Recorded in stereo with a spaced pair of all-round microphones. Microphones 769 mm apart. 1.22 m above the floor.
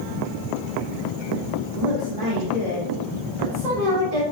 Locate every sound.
1.7 s a woman speaking: 85° right, 4 m; by 4.2 s 70° right (ahead or behind), 3.5 m